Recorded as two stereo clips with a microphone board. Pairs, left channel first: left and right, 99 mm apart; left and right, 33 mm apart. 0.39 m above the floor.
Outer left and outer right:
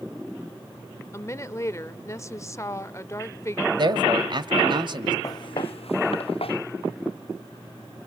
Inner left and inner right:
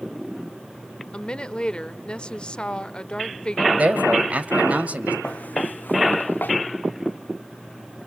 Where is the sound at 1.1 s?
30° left (ahead or behind), 1.0 m.